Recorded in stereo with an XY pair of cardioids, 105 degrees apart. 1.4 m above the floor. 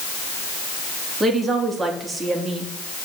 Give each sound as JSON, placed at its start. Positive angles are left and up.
{"t": 1.2, "sound": "a woman speaking", "azimuth_deg": -35, "distance_m": 3.0}